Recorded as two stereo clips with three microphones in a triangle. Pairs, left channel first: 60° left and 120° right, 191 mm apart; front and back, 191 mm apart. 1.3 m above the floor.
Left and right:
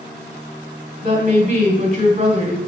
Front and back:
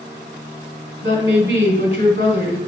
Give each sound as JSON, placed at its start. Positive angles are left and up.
{"t": 1.0, "sound": "a woman speaking", "azimuth_deg": -160, "distance_m": 3.0}